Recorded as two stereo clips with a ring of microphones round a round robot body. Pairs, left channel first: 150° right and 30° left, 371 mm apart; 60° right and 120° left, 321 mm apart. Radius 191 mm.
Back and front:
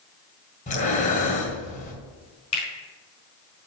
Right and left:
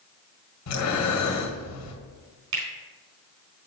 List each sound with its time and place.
0.7 s breathing: 85° right, 2 m
2.5 s a finger snap: 135° left, 4 m